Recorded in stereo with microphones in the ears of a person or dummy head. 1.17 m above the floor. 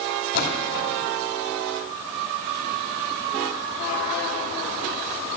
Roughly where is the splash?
Left.